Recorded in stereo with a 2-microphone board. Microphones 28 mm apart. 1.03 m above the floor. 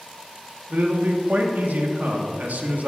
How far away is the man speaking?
About 1.4 m.